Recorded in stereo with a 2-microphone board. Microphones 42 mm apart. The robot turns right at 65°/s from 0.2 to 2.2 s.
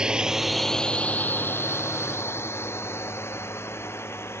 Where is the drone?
20° right (ahead or behind); by 4.4 s 80° left.